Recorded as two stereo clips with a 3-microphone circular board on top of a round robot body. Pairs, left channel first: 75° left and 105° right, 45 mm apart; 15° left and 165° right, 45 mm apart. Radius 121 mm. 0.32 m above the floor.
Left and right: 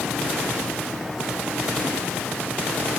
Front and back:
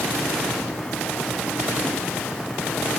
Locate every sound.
Only background noise.